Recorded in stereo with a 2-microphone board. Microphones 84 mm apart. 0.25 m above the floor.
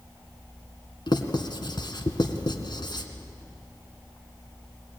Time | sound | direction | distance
1.1 | writing | 65° left (ahead or behind) | 2.0 m